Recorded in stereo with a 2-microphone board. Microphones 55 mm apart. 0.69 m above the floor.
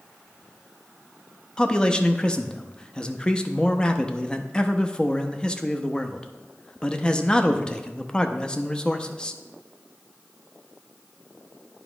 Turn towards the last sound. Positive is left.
turn(degrees=15)  # may be behind; listen again after turning